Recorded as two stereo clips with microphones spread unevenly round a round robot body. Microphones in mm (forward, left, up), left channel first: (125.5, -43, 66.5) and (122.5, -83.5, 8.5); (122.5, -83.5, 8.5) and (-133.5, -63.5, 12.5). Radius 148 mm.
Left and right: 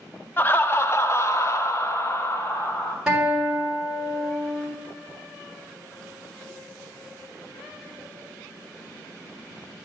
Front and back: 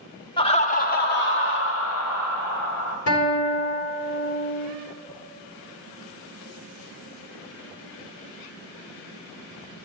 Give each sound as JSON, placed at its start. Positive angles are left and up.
{"t": 0.4, "sound": "laughter", "azimuth_deg": -60, "distance_m": 0.8}
{"t": 3.1, "sound": "a guitar", "azimuth_deg": -25, "distance_m": 3.5}